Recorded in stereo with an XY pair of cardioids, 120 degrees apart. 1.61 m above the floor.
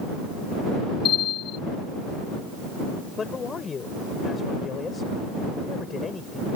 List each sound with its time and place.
1.1 s a bell: 65° left
3.2 s a man speaking: 35° left